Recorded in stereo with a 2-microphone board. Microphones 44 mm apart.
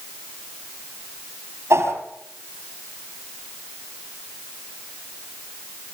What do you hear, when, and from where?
1.7 s a whoosh: 75° right (ahead or behind), 5.5 m